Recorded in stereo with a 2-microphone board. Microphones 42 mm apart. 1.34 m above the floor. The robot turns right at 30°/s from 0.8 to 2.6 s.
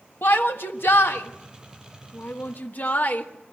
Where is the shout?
70° left (ahead or behind), 1.4 m; by 3.2 s 55° left (ahead or behind), 1.4 m.